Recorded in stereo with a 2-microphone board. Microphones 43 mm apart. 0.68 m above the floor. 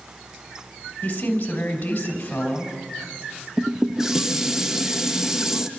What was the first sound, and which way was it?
A woman speaking, 40° left (ahead or behind).